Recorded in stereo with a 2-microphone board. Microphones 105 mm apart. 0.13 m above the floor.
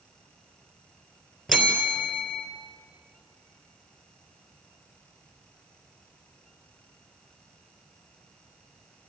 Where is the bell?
Centre (ahead or behind), 3 m.